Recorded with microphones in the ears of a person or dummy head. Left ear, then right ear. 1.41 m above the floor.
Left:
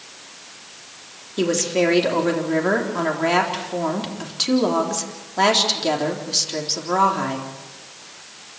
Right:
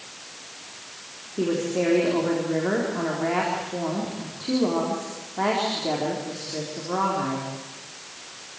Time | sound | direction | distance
1.4 | a woman speaking | 85° left | 3.5 m